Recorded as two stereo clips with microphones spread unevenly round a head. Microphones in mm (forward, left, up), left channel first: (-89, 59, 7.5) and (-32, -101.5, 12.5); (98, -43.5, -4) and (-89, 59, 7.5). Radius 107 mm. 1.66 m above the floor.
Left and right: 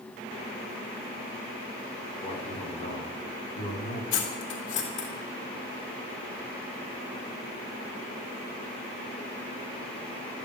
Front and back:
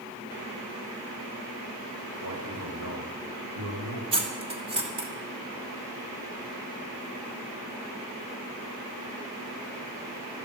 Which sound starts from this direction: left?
Cutlery clinking, at 4.1 s.